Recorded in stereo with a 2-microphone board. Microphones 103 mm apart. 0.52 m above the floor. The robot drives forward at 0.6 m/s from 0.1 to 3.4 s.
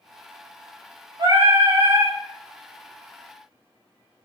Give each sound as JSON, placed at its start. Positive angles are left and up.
{"t": 1.2, "sound": "singing", "side_deg": -45, "distance_m": 1.2}